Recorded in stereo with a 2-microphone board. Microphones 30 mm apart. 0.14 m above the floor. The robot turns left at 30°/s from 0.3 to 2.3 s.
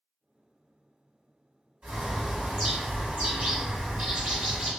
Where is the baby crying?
No baby crying in this recording.